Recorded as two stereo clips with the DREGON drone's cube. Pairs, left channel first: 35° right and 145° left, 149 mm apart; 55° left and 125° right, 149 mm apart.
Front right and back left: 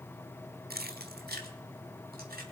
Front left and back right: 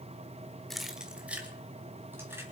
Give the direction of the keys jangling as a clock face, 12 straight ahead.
7 o'clock.